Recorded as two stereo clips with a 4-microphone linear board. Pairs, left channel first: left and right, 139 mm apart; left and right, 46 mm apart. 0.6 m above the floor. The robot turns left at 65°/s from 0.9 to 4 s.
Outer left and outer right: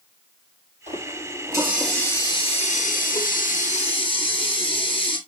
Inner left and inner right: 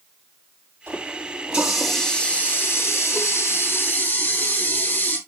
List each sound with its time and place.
0.9 s a running tap: 120° right, 6.5 m; by 5.2 s 40° left, 6.5 m